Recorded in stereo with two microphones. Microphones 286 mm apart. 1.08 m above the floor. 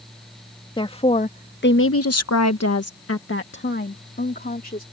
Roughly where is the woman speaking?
Centre.